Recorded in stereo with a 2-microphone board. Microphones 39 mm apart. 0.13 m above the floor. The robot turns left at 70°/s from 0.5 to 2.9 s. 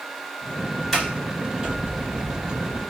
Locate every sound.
0.9 s a sliding door: 5° left (ahead or behind), 2 m; by 2.8 s 30° right (ahead or behind), 2 m